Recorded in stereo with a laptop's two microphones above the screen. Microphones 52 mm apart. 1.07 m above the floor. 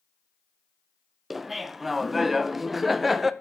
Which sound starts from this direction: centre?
Laughter, at 1.3 s.